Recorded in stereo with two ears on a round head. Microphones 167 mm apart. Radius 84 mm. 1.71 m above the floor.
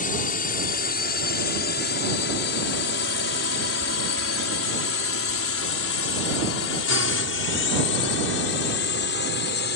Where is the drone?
45° left (ahead or behind); by 9.8 s 60° left (ahead or behind).